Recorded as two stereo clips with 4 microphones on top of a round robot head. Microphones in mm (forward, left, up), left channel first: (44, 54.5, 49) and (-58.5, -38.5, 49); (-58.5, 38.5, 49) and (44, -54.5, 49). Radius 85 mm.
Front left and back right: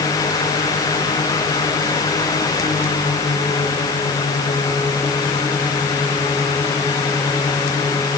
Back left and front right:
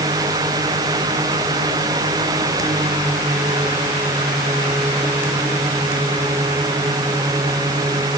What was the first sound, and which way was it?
Only background noise.